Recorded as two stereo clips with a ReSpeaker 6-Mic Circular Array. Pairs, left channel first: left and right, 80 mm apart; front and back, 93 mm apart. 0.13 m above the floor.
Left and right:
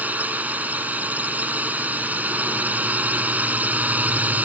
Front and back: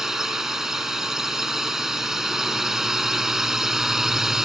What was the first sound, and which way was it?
A drone, 105° right.